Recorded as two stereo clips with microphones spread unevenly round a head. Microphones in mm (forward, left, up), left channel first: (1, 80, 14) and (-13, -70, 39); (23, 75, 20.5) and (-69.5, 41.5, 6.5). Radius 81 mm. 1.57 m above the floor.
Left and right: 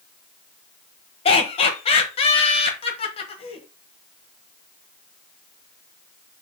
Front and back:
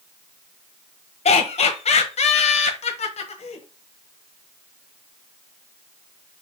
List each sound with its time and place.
1.2 s laughter: 25° left, 1.2 m